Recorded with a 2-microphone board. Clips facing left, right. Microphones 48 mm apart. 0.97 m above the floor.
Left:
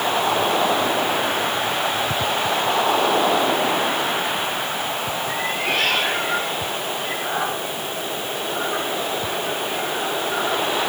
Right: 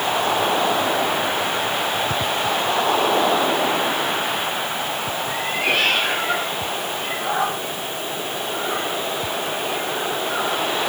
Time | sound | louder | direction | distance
5.3 | a cat meowing | right 3 dB | 60° right (ahead or behind) | 8 m